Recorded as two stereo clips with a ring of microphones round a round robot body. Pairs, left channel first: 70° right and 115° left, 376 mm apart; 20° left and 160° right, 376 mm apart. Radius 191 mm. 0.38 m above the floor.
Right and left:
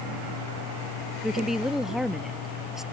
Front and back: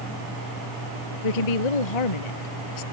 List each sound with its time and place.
1.2 s a woman speaking: 25° left